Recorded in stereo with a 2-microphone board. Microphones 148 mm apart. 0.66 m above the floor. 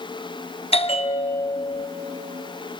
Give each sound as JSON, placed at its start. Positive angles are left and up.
{"t": 0.7, "sound": "a bell", "side_deg": 45, "distance_m": 0.7}